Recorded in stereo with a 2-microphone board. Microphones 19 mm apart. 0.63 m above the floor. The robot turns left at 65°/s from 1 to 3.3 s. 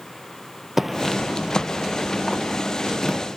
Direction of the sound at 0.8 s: 20° right (ahead or behind).